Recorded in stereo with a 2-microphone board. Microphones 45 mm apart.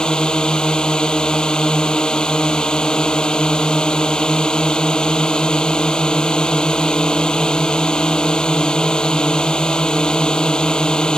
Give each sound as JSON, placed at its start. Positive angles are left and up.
{"t": 0.0, "sound": "a drone", "side_deg": 15}